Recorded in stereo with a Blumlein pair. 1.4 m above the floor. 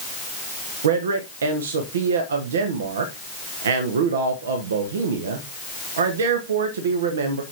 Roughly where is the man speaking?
Ahead right.